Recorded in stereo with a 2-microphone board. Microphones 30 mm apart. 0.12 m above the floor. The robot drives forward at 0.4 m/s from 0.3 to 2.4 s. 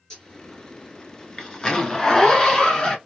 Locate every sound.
0.1 s a zipper: 20° left (ahead or behind), 1.3 m; by 3.0 s 25° left (ahead or behind), 1.0 m